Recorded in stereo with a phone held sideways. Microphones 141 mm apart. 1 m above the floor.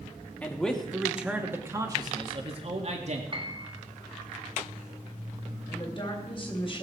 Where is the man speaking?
10° left (ahead or behind), 2.0 m; by 3.2 s 55° right (ahead or behind), 2 m.